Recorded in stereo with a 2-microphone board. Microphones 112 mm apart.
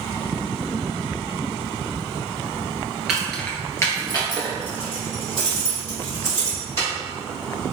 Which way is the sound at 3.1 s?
5° right (ahead or behind).